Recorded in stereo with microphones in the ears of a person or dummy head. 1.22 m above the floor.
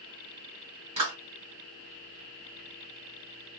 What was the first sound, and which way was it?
A clap, 35° right (ahead or behind).